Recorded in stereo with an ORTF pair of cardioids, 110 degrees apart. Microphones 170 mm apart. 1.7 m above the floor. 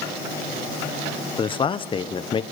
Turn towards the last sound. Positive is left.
turn(degrees=30)